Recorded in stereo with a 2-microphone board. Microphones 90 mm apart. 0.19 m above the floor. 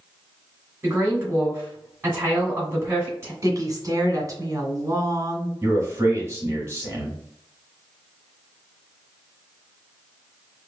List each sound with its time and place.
0.8 s a woman speaking: 25° right (ahead or behind), 1.8 m
3.4 s a woman speaking: 40° right (ahead or behind), 1.7 m
5.6 s a man speaking: 30° right (ahead or behind), 1.5 m